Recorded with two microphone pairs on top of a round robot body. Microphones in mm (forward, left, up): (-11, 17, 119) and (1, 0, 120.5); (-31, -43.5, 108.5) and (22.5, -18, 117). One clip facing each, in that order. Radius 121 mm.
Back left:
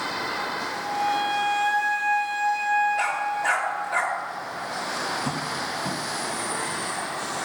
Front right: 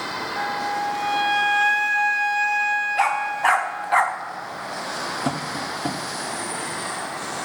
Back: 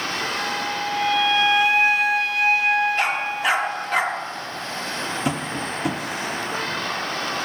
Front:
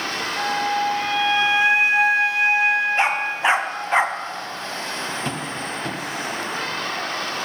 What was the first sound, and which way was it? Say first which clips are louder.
A flute: front right 4 dB, front 4 dB; 40° right.